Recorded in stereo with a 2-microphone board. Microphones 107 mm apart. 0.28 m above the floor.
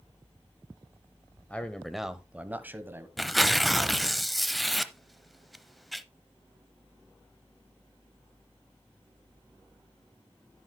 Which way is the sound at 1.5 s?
15° left (ahead or behind).